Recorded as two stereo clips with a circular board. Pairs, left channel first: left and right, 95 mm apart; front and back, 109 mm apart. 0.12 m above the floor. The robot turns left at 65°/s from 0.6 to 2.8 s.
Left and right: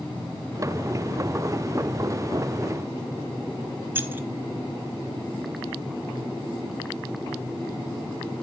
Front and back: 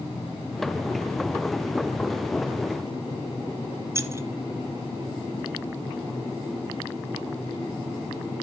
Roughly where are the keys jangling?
Behind right.